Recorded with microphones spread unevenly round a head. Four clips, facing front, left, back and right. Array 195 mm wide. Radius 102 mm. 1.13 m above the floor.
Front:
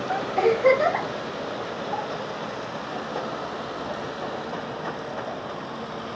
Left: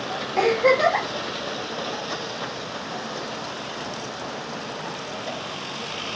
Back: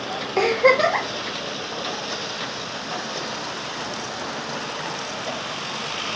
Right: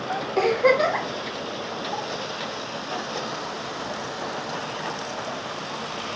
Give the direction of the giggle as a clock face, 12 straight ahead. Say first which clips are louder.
Left 1 dB, back 2 dB; 6 o'clock.